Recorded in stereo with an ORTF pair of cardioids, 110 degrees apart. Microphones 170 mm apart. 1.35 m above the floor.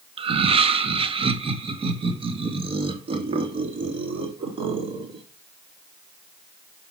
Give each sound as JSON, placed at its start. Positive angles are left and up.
{"t": 0.2, "sound": "laughter", "azimuth_deg": -35, "distance_m": 1.0}